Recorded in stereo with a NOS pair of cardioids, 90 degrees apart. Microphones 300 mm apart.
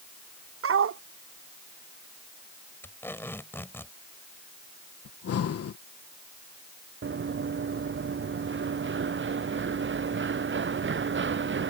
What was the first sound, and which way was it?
A dog barking, 50° right.